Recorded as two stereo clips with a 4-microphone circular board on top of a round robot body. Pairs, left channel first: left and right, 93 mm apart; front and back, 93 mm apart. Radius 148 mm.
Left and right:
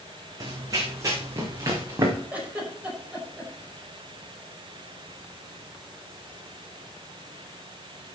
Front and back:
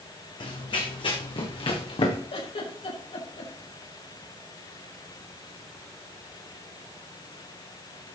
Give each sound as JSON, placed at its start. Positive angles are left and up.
{"t": 0.4, "sound": "running footsteps", "azimuth_deg": -40, "distance_m": 2.5}
{"t": 2.3, "sound": "a giggle", "azimuth_deg": -15, "distance_m": 5.5}